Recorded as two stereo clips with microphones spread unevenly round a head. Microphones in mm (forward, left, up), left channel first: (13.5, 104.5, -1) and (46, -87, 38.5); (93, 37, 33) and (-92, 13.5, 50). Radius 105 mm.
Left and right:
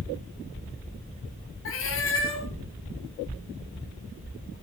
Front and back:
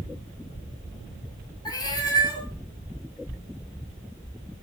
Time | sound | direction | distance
1.6 | a cat meowing | 75° left | 3.5 m